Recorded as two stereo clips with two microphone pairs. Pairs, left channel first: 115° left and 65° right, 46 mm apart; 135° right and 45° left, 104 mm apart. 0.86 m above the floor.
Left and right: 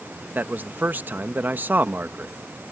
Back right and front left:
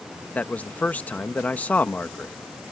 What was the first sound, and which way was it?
A man speaking, 70° right.